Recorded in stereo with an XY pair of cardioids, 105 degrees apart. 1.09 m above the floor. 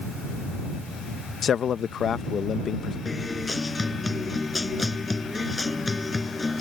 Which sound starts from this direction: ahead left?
A man speaking, at 1.4 s.